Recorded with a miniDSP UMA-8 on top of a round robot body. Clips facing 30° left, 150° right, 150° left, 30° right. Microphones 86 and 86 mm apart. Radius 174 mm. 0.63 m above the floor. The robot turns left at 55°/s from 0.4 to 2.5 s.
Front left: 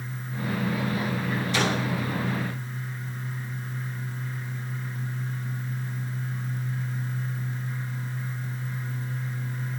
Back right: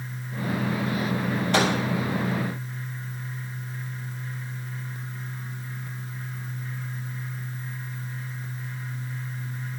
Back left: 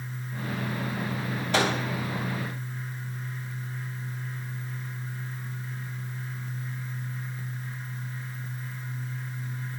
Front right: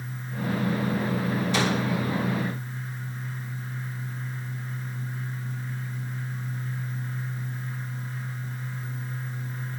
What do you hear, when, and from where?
1.5 s a microwave: 175° right, 3.5 m; by 1.7 s 175° left, 3.5 m